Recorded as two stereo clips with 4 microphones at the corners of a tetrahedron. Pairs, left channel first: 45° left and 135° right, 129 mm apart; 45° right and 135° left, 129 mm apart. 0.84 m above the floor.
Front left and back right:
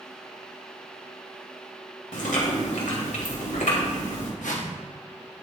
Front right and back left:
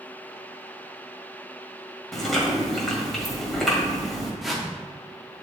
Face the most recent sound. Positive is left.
turn(degrees=45)